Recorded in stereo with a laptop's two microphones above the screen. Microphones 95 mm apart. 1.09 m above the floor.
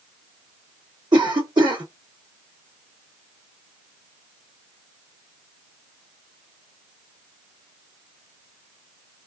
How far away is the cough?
About 2.5 m.